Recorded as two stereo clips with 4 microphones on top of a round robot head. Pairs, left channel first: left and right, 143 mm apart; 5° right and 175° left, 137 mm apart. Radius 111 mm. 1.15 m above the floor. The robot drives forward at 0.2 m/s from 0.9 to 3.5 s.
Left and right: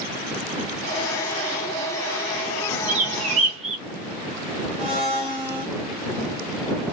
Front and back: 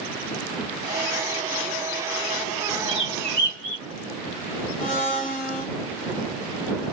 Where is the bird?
125° right, 0.9 m; by 3.8 s 130° right, 1.0 m.